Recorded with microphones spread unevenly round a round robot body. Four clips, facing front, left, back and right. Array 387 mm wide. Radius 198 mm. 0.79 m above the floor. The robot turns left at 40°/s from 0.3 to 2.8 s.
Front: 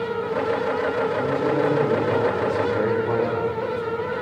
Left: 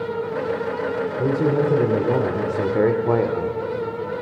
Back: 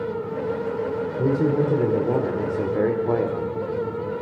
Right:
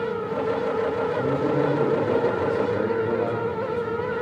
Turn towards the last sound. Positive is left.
turn(degrees=85)